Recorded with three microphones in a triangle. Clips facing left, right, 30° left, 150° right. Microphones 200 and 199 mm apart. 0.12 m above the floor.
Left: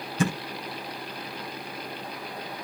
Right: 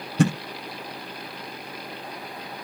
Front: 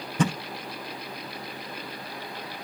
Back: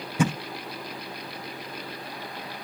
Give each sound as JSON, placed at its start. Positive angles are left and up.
{"t": 0.2, "sound": "a thud", "azimuth_deg": -70, "distance_m": 9.5}